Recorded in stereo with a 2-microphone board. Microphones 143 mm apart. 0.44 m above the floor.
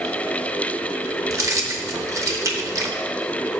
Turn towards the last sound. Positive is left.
turn(degrees=-25)  # may be behind; listen again after turning